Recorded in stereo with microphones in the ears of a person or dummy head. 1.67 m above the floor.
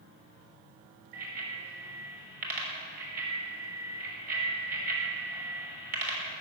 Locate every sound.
1.1 s a bicycle bell: 50° right (ahead or behind), 6 m